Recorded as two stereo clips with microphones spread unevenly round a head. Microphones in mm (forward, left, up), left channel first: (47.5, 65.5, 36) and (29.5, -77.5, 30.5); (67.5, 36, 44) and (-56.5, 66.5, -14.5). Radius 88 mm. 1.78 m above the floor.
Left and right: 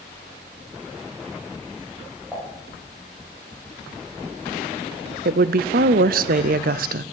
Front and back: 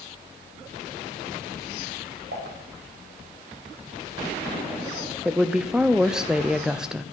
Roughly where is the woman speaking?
Right.